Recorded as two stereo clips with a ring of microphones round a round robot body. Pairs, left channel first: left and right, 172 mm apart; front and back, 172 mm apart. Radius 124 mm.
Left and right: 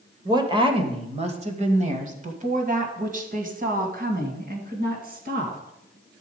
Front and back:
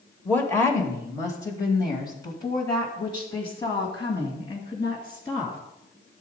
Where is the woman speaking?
65° right, 1.3 m; by 5.6 s 70° right, 3.5 m.